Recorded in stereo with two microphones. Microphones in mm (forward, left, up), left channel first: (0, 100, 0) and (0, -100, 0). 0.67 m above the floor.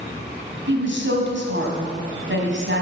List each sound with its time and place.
0.7 s a woman speaking: 70° right (ahead or behind), 3.5 m